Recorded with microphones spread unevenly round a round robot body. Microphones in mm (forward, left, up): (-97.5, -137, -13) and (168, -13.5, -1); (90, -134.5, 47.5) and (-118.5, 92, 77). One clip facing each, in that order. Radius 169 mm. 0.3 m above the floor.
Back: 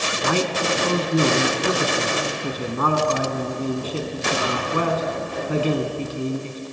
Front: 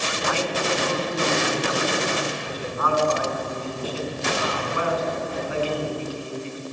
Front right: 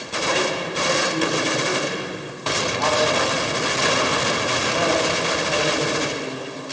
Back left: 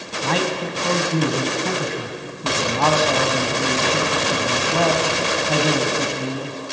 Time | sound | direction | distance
0.2 | a man speaking | 155° left | 2.5 m